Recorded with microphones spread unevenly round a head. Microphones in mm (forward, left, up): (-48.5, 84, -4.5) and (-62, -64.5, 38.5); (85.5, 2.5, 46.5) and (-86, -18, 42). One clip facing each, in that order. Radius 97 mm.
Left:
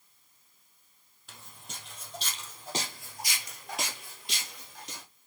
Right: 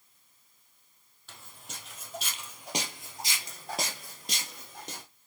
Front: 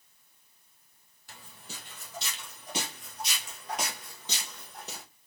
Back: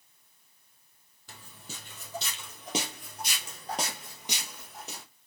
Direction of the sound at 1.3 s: Straight behind.